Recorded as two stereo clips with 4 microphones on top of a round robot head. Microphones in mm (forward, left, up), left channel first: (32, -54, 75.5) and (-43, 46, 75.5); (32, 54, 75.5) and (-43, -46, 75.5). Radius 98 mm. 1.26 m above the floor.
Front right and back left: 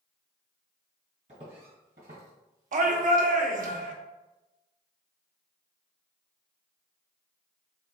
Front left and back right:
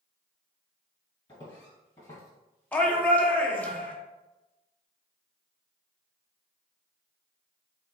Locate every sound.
1.3 s footsteps: 100° left, 1.6 m; by 3.7 s 130° left, 2.5 m
2.7 s a shout: 130° left, 1.0 m